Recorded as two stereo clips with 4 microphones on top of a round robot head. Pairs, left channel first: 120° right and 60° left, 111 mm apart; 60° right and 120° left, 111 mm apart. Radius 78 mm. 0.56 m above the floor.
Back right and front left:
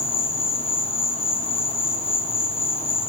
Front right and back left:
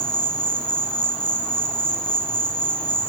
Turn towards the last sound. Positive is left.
turn(degrees=-140)